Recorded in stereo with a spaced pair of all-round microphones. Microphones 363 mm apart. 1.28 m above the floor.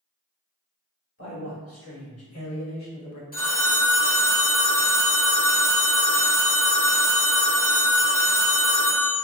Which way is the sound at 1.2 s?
35° left (ahead or behind).